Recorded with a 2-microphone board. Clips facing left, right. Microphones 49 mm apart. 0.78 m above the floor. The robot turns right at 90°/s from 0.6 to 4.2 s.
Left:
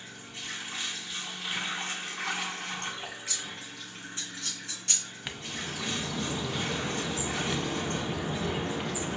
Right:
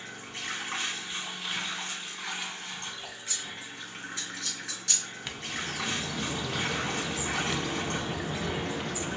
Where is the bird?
10° left (ahead or behind), 0.5 m.